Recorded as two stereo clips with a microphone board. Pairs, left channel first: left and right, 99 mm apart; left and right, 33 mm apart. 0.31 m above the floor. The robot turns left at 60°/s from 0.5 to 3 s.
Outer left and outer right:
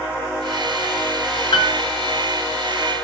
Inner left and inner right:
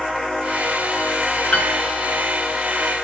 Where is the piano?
45° left (ahead or behind), 1.5 m; by 1.8 s 55° left (ahead or behind), 1.5 m.